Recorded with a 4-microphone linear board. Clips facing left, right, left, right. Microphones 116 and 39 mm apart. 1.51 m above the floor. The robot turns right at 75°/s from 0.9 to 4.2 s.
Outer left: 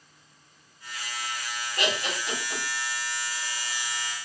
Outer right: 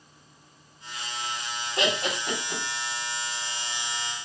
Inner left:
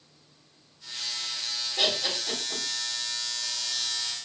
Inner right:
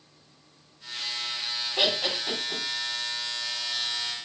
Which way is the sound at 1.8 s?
75° right (ahead or behind).